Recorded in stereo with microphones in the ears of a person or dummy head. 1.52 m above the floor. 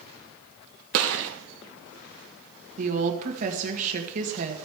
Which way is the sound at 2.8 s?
40° right (ahead or behind).